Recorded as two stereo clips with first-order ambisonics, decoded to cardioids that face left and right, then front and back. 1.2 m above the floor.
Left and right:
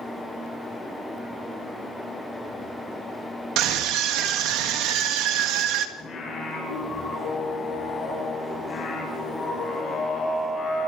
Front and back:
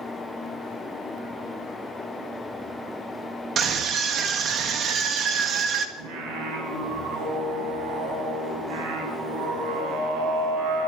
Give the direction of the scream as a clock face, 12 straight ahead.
4 o'clock.